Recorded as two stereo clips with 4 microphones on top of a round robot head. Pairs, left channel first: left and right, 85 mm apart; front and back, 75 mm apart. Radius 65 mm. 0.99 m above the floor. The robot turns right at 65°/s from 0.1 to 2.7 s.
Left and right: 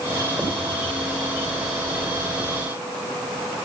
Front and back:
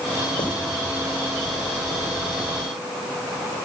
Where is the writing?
10° right, 4 m; by 0.6 s straight ahead, 4 m.